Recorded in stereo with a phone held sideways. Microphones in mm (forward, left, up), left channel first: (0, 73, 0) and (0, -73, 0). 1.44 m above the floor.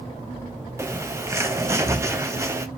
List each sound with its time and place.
0.8 s a bird: 20° right (ahead or behind), 0.7 m